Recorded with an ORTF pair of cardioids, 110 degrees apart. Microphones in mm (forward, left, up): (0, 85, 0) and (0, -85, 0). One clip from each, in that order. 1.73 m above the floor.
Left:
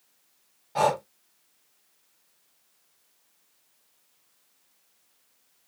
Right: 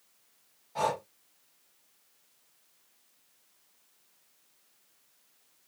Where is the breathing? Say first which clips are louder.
Left 7 dB; 45° left, 0.8 m.